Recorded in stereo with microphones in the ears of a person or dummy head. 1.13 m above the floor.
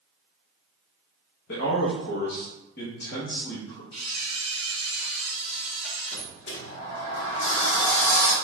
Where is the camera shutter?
25° left (ahead or behind), 1.7 m.